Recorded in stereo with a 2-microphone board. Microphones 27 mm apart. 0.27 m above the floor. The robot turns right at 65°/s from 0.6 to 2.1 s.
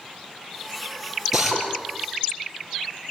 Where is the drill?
10° right (ahead or behind), 6.5 m; by 1.6 s 10° left (ahead or behind), 6.5 m.